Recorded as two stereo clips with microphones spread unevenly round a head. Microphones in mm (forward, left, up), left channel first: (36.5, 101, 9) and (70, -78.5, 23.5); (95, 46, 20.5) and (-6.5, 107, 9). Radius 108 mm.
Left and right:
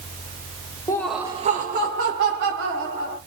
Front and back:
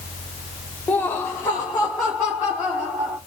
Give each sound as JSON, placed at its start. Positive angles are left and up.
{"t": 0.9, "sound": "laughter", "azimuth_deg": 30, "distance_m": 0.8}